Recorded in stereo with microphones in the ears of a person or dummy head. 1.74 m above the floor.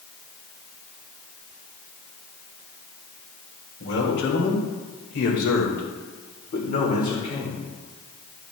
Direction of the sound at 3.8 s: 65° left (ahead or behind).